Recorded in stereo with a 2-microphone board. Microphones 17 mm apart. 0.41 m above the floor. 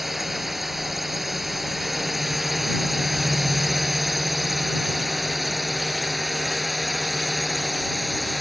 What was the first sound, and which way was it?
A drone, 5° right (ahead or behind).